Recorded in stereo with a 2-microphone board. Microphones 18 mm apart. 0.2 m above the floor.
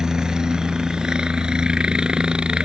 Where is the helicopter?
45° right (ahead or behind); by 2.6 s 60° right (ahead or behind).